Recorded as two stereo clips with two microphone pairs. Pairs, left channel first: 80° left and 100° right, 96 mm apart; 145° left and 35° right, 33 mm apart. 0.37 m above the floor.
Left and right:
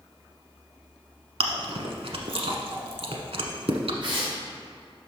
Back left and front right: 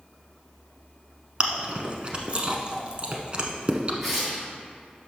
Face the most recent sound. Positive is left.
turn(degrees=-125)